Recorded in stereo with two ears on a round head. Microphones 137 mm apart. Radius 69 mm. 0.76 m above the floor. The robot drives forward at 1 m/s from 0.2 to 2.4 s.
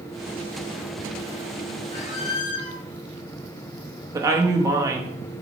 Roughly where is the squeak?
Left.